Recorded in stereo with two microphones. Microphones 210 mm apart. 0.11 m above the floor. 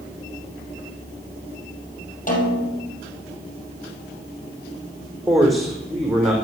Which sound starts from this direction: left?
A snare drum, at 2.3 s.